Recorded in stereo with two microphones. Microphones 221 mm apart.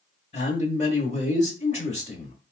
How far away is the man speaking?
About 1.0 m.